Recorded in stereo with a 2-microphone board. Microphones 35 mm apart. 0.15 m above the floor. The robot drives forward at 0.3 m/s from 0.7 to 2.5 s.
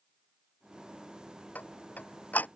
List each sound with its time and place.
1.6 s ticking: 50° left (ahead or behind)